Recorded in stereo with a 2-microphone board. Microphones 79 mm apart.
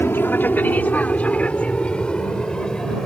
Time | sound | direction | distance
0.0 | an aircraft | 25° left (ahead or behind) | ?